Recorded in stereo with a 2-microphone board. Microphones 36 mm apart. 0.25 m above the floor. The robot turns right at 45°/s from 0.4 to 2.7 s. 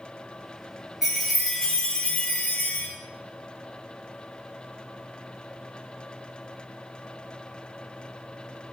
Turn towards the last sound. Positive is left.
turn(degrees=65)